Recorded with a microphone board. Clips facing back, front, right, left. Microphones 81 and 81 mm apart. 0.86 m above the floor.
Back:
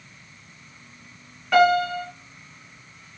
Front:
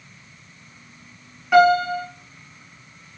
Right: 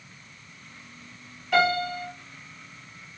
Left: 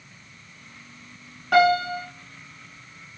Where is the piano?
85° left, 1.5 m.